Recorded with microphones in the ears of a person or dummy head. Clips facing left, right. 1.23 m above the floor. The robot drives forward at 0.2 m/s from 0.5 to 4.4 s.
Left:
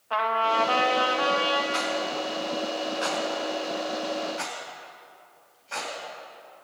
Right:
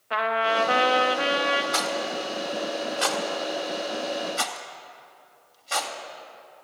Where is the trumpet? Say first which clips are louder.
Right 1 dB; 25° right (ahead or behind), 0.7 m; by 1.6 s 20° right (ahead or behind), 0.9 m.